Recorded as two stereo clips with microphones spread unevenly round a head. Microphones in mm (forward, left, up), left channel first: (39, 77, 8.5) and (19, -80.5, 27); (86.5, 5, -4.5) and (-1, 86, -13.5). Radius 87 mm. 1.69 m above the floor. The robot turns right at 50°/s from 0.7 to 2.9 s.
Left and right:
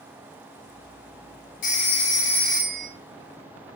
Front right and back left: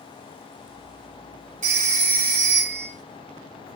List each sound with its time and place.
1.6 s a phone ringing: 130° left, 3.5 m; by 2.9 s 165° right, 3.5 m